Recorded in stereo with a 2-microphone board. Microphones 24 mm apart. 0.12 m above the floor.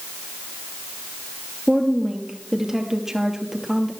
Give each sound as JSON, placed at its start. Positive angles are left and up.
{"t": 1.7, "sound": "a woman speaking", "side_deg": -20, "distance_m": 2.5}